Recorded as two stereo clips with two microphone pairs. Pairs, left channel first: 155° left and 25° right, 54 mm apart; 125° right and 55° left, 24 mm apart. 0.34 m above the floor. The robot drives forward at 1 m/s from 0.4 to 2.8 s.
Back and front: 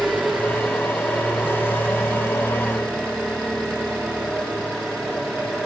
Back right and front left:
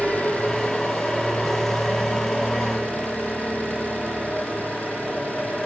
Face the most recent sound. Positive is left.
turn(degrees=-130)